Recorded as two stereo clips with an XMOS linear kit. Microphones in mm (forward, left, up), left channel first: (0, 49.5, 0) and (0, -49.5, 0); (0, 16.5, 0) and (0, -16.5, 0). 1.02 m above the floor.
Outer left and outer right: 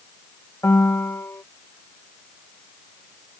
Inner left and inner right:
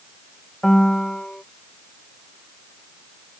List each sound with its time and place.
0.6 s a piano: 25° left (ahead or behind)